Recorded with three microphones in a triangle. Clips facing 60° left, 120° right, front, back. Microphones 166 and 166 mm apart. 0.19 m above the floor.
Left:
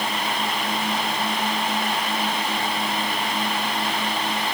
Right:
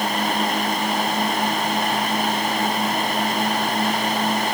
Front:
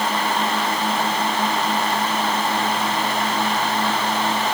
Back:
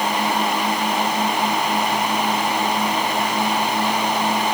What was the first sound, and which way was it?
Only background noise.